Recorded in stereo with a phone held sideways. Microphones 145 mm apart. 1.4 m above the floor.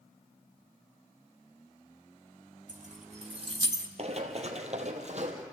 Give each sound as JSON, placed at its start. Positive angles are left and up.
{"t": 2.7, "sound": "keys jangling", "side_deg": -60, "distance_m": 1.6}
{"t": 4.0, "sound": "running footsteps", "side_deg": -45, "distance_m": 1.9}